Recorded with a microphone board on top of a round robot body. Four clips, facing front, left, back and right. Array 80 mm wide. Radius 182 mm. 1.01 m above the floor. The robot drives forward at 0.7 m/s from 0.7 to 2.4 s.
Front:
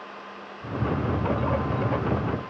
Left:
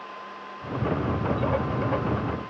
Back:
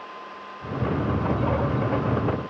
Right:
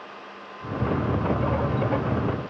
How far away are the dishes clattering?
I don't hear dishes clattering.